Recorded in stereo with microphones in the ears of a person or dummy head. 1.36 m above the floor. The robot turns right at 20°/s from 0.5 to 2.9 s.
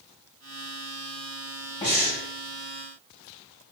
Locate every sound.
1.8 s breathing: 25° left (ahead or behind), 1.5 m; by 2.2 s 15° left (ahead or behind), 1.5 m